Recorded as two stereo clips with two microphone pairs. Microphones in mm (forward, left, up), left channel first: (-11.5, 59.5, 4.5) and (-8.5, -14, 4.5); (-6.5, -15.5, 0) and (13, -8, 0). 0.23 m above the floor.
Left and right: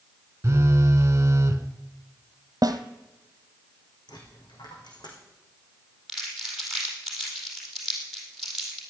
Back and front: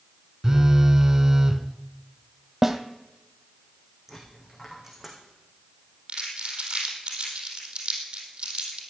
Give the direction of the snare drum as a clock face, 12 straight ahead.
2 o'clock.